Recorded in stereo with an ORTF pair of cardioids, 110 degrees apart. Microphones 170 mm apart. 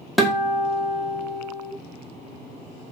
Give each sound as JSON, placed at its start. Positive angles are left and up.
{"t": 0.2, "sound": "a guitar", "azimuth_deg": 0, "distance_m": 0.6}